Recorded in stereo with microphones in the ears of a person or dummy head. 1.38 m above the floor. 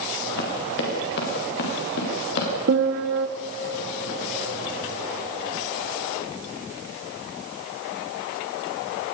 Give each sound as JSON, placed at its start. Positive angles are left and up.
{"t": 0.4, "sound": "running footsteps", "side_deg": 60, "distance_m": 7.0}
{"t": 2.7, "sound": "a piano", "side_deg": -70, "distance_m": 1.8}